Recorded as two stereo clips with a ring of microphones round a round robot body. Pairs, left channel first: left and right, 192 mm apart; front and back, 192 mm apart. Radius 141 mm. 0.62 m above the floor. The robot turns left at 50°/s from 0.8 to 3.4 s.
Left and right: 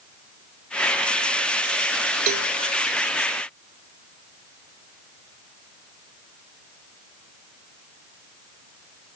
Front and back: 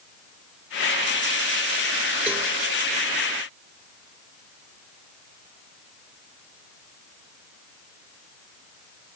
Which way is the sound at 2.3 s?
95° right.